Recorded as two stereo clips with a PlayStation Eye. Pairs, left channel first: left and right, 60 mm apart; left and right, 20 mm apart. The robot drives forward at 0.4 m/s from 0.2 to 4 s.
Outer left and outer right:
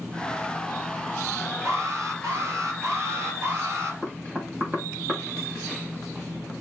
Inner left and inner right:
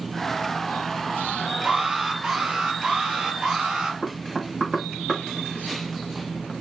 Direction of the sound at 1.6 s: 55° right (ahead or behind).